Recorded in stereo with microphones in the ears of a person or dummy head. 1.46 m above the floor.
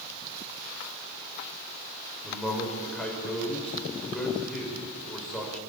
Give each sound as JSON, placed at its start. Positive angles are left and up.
{"t": 2.2, "sound": "a man speaking", "side_deg": 5, "distance_m": 6.0}